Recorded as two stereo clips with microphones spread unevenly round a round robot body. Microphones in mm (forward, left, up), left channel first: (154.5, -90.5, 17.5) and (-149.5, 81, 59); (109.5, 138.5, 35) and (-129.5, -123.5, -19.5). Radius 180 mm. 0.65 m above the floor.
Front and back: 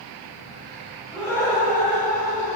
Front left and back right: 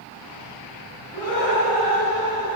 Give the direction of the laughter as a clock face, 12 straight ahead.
10 o'clock.